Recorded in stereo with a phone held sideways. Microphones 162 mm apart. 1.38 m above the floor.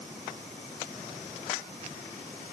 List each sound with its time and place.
Only background noise.